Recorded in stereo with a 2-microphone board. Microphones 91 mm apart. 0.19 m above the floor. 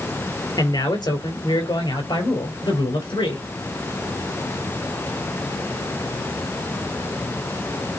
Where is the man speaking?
55° left (ahead or behind), 4 m; by 3.5 s 70° left (ahead or behind), 4.5 m.